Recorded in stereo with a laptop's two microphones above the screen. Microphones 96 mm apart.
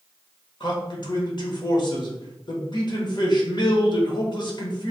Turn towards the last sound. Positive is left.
turn(degrees=50)  # may be behind; listen again after turning